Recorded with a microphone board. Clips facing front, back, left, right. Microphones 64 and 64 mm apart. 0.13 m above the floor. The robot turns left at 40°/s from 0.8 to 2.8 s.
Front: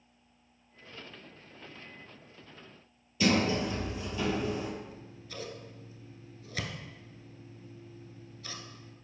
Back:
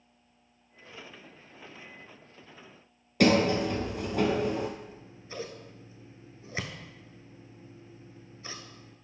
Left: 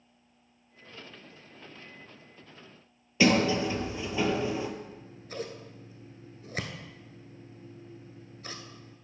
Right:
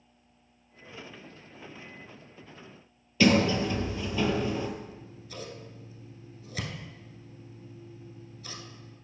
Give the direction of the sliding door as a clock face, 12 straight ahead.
7 o'clock.